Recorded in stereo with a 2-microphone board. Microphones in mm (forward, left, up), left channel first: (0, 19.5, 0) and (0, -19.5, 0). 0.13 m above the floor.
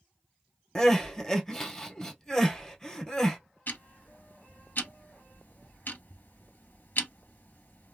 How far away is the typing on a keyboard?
I don't hear typing on a keyboard.